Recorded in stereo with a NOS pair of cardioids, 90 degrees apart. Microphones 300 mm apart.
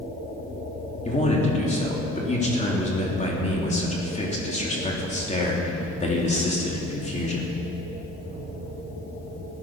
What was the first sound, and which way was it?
A man speaking, 25° left.